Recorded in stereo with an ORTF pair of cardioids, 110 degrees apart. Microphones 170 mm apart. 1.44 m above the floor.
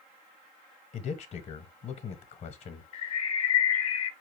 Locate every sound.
0.9 s a man speaking: 40° left, 1.1 m
2.9 s a bird: 40° left, 1.0 m